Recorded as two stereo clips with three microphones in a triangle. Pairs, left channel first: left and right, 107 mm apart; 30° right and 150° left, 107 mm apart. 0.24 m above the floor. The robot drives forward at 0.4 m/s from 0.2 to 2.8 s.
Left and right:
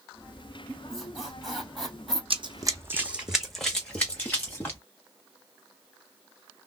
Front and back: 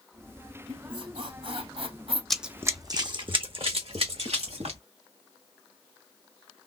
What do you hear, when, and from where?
0.7 s a squeak: 175° left, 2 m
2.3 s running footsteps: 115° right, 0.7 m; by 4.8 s 160° left, 1.7 m